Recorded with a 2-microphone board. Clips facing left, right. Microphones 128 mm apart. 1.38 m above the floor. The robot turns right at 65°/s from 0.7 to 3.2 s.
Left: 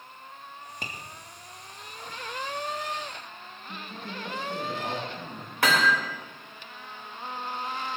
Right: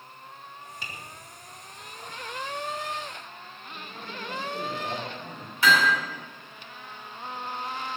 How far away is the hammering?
About 4 m.